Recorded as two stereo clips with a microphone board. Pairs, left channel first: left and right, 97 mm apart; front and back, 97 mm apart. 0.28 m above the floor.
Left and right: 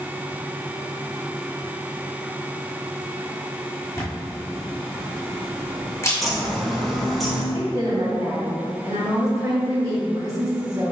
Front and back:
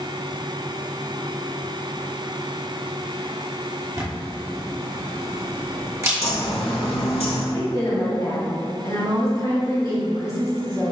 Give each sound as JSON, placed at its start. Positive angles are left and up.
{"t": 4.0, "sound": "a camera shutter", "azimuth_deg": 135, "distance_m": 1.2}
{"t": 6.2, "sound": "a bird", "azimuth_deg": 0, "distance_m": 0.9}
{"t": 7.5, "sound": "a woman speaking", "azimuth_deg": -45, "distance_m": 1.5}